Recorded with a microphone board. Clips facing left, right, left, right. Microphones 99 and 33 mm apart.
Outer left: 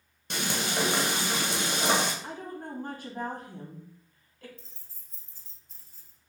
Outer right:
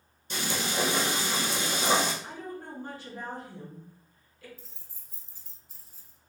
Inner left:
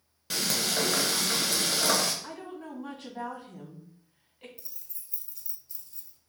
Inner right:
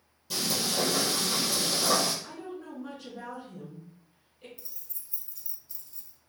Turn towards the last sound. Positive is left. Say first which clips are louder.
# outer right 1 dB, inner right 1 dB
turn(degrees=-5)  # may be behind; listen again after turning